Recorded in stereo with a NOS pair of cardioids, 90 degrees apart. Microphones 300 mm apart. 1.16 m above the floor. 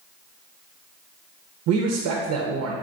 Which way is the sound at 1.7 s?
65° right.